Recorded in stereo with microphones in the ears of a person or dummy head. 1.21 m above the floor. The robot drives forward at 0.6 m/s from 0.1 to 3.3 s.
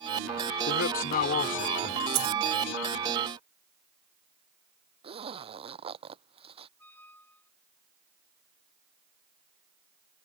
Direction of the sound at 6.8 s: 15° left (ahead or behind).